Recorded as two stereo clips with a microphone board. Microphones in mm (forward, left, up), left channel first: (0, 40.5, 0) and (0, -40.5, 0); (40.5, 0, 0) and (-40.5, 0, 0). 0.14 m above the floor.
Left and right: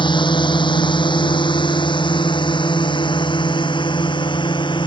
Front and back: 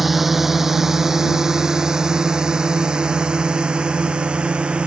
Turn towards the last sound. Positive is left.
turn(degrees=105)